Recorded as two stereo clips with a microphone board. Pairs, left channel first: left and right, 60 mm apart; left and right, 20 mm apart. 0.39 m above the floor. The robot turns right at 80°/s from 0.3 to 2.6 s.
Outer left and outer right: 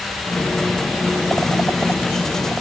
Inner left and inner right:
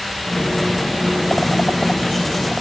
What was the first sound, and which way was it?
Only background noise.